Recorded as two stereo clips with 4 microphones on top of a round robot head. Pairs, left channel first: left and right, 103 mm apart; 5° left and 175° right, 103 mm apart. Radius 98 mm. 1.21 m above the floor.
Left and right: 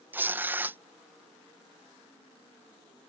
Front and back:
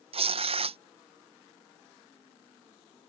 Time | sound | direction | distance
0.1 | tearing paper | 160° right | ?